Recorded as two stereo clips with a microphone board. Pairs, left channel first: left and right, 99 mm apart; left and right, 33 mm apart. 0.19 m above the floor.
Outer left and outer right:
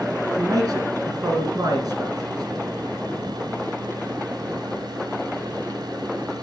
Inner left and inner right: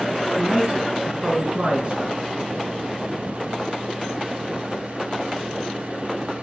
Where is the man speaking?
45° right (ahead or behind), 2.5 m.